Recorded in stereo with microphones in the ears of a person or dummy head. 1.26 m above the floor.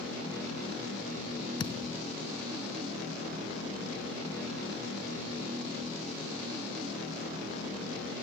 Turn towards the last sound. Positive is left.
turn(degrees=30)  # may be behind; listen again after turning